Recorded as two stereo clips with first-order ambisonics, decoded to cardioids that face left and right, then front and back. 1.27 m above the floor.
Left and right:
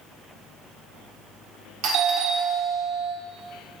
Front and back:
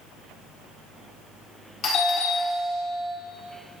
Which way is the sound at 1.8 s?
60° right.